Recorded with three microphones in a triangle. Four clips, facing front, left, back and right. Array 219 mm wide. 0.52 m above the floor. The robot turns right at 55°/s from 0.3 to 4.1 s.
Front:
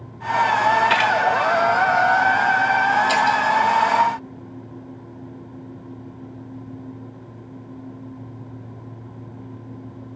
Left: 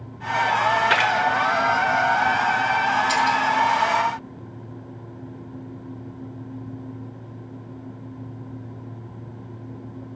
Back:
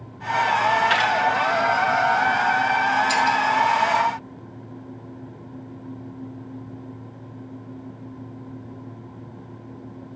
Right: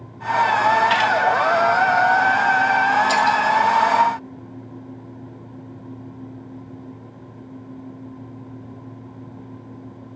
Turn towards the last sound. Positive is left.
turn(degrees=10)